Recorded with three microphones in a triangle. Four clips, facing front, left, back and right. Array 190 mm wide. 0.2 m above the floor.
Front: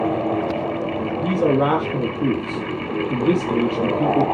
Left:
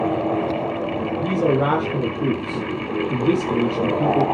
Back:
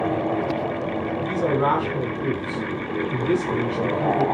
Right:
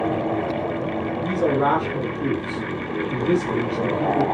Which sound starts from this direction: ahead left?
A man speaking, at 1.2 s.